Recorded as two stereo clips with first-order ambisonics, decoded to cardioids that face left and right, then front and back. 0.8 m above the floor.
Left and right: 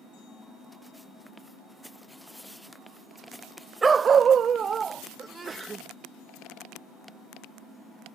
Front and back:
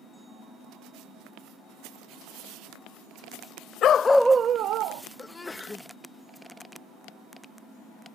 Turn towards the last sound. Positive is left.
turn(degrees=-60)